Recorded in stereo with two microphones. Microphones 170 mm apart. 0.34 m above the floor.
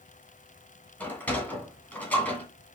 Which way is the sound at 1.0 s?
10° left (ahead or behind).